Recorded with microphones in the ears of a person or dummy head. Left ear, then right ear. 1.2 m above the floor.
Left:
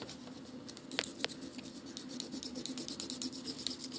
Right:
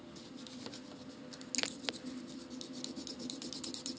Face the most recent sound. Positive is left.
turn(degrees=-70)  # may be behind; listen again after turning